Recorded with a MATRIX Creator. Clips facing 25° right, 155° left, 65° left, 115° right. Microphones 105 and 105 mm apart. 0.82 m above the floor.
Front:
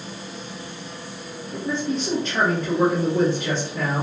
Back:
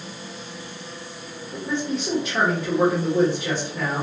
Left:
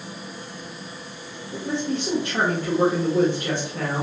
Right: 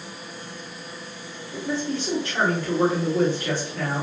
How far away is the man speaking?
About 1.2 m.